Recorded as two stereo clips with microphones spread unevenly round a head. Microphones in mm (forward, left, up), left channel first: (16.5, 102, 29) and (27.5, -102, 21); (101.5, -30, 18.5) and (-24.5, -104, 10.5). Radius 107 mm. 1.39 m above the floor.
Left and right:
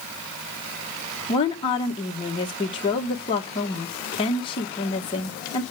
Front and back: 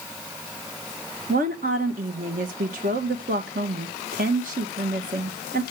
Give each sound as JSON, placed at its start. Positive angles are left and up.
{"t": 1.3, "sound": "a woman speaking", "azimuth_deg": 160, "distance_m": 1.8}